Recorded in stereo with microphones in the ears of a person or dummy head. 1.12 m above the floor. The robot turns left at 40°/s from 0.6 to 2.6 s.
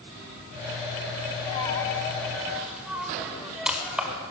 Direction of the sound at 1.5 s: 35° left (ahead or behind).